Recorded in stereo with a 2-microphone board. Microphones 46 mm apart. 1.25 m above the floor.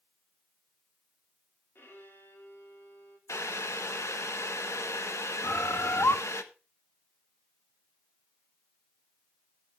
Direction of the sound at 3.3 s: 75° left (ahead or behind).